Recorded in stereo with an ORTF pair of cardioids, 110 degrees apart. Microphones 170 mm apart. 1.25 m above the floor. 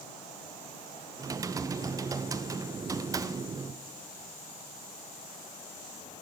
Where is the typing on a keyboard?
20° right, 0.6 m.